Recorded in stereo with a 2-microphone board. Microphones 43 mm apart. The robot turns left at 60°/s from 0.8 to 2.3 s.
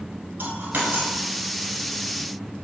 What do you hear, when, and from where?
0.4 s a dropped coin: 50° right (ahead or behind), 0.9 m